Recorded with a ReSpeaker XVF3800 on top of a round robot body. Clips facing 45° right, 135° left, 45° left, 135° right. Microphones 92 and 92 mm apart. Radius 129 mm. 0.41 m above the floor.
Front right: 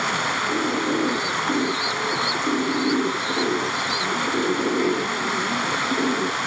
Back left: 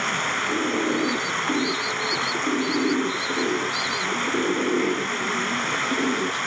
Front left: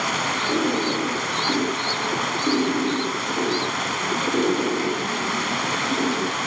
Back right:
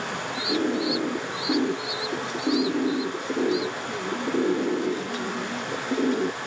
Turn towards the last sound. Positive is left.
turn(degrees=35)